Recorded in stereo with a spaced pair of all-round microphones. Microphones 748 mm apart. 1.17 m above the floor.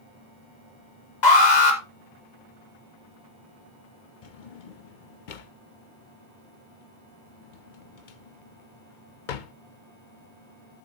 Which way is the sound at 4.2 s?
75° left (ahead or behind).